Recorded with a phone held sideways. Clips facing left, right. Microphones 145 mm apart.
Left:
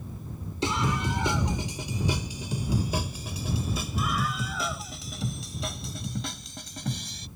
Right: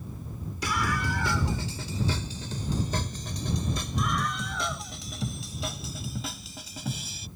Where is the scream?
25° left (ahead or behind); by 7.3 s 5° right (ahead or behind).